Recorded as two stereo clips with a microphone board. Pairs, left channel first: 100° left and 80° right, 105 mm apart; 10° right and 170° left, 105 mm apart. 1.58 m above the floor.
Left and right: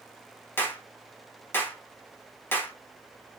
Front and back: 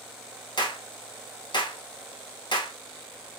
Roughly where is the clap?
Ahead left.